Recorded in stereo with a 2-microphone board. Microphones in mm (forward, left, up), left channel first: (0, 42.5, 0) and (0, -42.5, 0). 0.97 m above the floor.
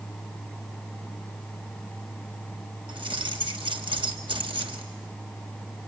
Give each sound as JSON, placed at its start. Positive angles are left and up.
{"t": 2.9, "sound": "keys jangling", "side_deg": -85, "distance_m": 1.3}